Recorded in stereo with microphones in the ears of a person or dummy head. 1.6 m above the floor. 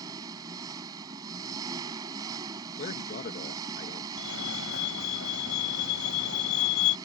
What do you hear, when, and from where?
0.0 s an engine running: 15° right (ahead or behind)
2.8 s a man speaking: 55° left (ahead or behind)
4.2 s a fire alarm: 75° left (ahead or behind)